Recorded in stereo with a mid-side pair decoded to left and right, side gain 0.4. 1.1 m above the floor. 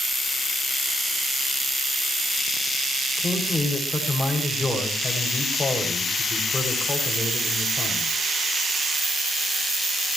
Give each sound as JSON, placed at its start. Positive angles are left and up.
{"t": 3.2, "sound": "a man speaking", "azimuth_deg": 20, "distance_m": 6.5}